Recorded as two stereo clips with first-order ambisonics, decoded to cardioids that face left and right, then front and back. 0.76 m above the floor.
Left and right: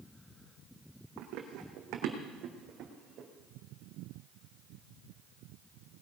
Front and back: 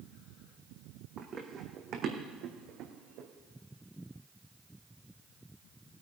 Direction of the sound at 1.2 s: 115° right.